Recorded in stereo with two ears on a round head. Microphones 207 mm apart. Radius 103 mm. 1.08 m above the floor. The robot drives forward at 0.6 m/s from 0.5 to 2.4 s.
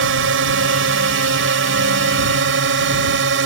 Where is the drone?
55° right (ahead or behind).